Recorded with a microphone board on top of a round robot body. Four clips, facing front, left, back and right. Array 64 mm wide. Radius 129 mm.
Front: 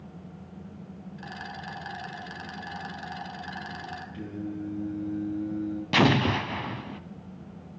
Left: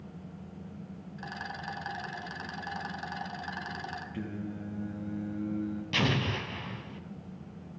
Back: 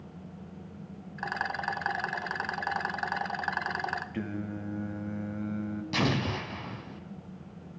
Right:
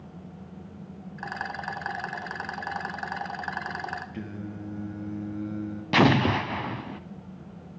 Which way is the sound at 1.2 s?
145° right.